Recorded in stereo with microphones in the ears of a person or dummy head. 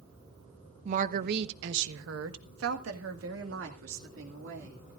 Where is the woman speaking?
40° right (ahead or behind), 1.0 m; by 5.0 s 65° right (ahead or behind), 3 m.